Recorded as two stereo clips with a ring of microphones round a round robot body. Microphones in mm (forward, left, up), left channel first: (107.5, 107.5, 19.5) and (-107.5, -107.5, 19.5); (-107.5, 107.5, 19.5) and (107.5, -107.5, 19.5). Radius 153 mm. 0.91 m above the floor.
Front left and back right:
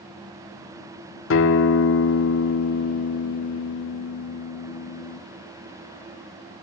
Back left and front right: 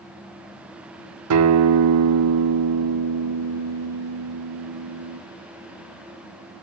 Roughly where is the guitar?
Ahead.